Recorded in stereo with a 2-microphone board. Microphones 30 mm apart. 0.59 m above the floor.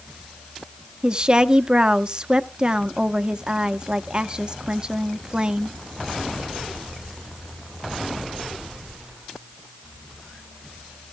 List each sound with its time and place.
1.0 s a woman speaking: 30° right (ahead or behind), 0.8 m